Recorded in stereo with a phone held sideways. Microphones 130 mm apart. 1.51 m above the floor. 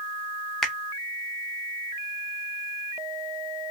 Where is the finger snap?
5° left (ahead or behind), 0.7 m.